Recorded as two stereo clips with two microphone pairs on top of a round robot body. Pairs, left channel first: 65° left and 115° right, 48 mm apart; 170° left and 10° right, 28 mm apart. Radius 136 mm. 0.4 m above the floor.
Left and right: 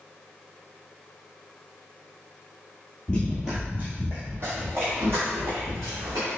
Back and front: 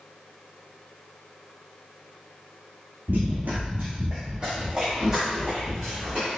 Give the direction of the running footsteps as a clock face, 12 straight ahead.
12 o'clock.